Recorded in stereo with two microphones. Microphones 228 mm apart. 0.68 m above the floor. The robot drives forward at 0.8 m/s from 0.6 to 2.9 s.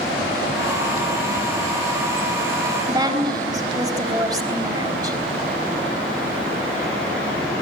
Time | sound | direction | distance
2.9 | a woman speaking | 15° right (ahead or behind) | 4 m